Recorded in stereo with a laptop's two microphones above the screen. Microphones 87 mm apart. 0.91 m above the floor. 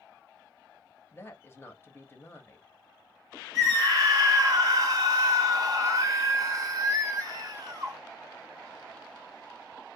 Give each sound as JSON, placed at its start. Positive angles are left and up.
{"t": 1.1, "sound": "a woman speaking", "side_deg": 30, "distance_m": 0.8}
{"t": 3.5, "sound": "a scream", "side_deg": -40, "distance_m": 0.9}